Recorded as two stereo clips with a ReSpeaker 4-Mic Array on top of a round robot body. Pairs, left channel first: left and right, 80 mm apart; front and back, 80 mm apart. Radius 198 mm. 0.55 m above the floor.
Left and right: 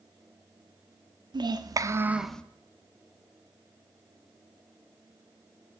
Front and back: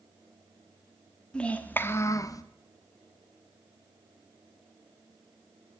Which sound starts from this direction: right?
A child speaking, at 1.3 s.